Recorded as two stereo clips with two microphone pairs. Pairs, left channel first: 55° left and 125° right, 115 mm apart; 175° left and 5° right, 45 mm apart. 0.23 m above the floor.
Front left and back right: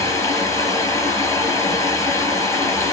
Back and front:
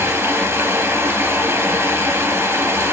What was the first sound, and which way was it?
Running water, 10° right.